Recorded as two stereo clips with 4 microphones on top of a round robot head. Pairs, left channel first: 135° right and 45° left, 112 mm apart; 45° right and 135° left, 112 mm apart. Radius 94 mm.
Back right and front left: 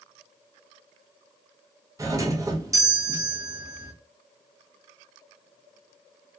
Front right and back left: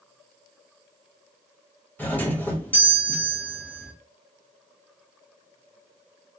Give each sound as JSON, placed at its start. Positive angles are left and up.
{"t": 2.0, "sound": "a doorbell", "azimuth_deg": 20, "distance_m": 1.0}